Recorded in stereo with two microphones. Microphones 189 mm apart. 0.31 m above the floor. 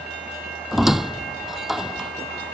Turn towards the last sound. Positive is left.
turn(degrees=0)  # may be behind; listen again after turning